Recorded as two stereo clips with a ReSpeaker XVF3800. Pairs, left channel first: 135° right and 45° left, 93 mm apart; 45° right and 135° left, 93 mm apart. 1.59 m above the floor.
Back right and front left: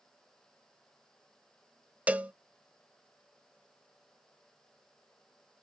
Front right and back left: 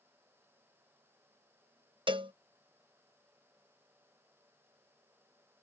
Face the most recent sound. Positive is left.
turn(degrees=120)